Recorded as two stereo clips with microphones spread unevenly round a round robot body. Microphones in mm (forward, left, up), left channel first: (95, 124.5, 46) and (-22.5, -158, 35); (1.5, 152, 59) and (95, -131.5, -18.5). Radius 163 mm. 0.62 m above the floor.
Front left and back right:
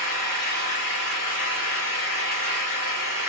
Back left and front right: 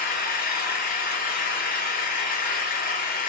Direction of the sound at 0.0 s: 45° left.